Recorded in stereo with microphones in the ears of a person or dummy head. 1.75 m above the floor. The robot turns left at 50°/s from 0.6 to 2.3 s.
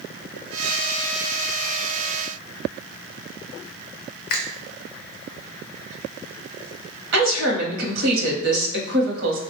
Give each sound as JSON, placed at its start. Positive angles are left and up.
{"t": 4.3, "sound": "a finger snap", "side_deg": 60, "distance_m": 0.5}
{"t": 7.1, "sound": "a woman speaking", "side_deg": -80, "distance_m": 1.0}